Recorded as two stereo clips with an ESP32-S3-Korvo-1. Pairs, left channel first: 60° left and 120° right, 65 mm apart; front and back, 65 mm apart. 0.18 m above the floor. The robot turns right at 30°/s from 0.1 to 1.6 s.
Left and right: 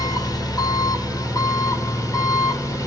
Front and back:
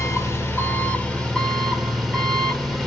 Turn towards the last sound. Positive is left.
turn(degrees=85)